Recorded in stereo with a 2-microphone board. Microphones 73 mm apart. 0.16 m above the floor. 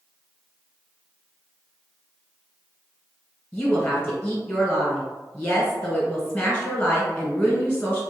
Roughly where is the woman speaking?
Centre.